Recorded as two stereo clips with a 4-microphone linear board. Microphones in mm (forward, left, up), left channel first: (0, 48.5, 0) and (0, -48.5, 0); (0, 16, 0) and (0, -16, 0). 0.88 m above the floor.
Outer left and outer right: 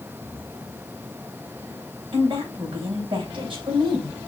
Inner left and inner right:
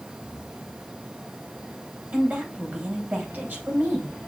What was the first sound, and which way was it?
A woman speaking, 65° right (ahead or behind).